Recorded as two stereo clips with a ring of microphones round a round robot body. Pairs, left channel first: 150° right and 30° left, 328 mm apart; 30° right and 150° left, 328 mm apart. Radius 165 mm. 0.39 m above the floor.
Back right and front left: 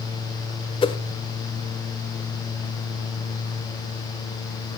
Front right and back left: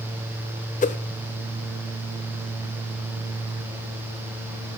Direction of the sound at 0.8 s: 85° right.